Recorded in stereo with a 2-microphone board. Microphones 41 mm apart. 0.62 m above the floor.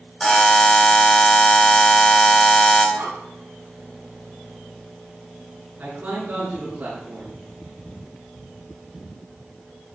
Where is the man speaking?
45° right (ahead or behind), 5.5 m.